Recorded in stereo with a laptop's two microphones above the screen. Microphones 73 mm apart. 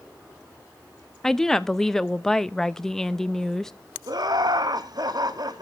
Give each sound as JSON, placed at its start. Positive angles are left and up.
{"t": 1.2, "sound": "a woman speaking", "side_deg": 5, "distance_m": 0.7}
{"t": 4.1, "sound": "laughter", "side_deg": -65, "distance_m": 1.3}